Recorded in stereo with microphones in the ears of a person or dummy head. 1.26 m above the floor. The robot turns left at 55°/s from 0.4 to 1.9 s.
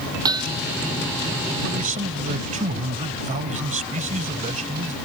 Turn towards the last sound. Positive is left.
turn(degrees=-35)  # may be behind; listen again after turning